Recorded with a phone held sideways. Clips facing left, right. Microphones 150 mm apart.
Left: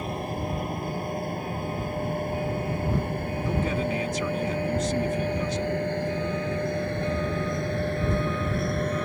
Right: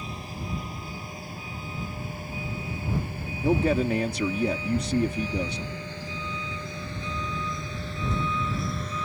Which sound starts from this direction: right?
A man speaking, at 3.4 s.